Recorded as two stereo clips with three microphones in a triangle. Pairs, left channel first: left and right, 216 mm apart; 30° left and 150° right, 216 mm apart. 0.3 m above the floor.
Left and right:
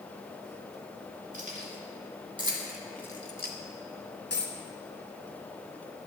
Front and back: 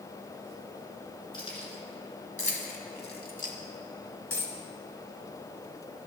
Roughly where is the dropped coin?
Ahead left.